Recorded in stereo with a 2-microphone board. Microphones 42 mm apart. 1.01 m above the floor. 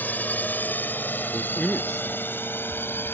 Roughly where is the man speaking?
Centre.